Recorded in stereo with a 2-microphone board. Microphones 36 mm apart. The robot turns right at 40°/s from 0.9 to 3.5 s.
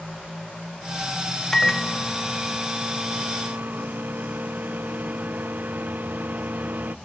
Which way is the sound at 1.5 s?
160° left.